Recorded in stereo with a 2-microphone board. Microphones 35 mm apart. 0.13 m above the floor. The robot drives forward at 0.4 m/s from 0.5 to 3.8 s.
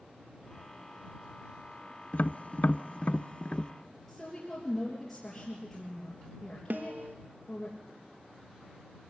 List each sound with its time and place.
2.1 s tapping: 40° left (ahead or behind), 0.6 m; by 3.7 s 30° left (ahead or behind), 0.7 m
4.1 s a woman speaking: 10° left (ahead or behind), 3.5 m
6.7 s a snare drum: 65° right (ahead or behind), 0.7 m